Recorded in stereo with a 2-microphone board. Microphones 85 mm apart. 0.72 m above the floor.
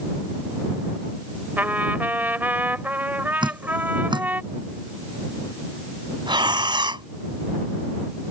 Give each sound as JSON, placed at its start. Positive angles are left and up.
{"t": 1.6, "sound": "a trumpet", "side_deg": -20}
{"t": 3.4, "sound": "dripping", "side_deg": -65}
{"t": 6.3, "sound": "breathing", "side_deg": -65}